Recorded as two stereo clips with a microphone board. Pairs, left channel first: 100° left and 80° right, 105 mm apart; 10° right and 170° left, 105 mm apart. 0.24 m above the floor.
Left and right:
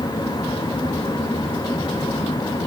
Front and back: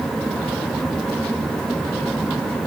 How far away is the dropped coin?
I don't hear a dropped coin.